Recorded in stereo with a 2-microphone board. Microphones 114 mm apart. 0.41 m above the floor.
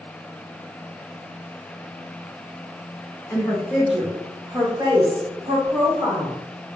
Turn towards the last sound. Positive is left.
turn(degrees=-60)  # may be behind; listen again after turning